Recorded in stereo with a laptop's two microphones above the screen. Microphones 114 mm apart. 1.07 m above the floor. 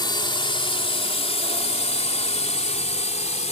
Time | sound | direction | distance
0.0 | a drone | 40° left (ahead or behind) | ?